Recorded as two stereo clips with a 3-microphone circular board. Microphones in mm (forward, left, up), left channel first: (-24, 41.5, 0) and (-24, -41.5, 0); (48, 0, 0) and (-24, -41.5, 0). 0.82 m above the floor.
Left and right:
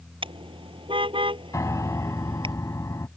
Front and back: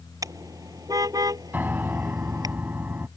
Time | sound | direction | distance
0.2 | a car horn | 100° right | ?
1.5 | a piano | 140° left | ?